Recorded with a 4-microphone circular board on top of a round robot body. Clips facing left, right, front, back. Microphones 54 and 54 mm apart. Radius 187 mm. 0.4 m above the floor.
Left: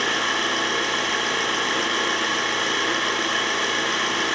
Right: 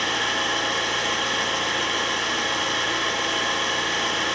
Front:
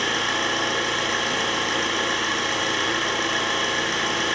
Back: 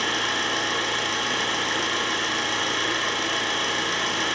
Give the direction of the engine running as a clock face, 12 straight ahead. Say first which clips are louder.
Left 1 dB, front 2 dB; 10 o'clock.